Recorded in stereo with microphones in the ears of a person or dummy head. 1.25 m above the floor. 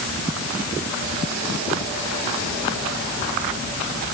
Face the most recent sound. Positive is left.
No sound to turn to.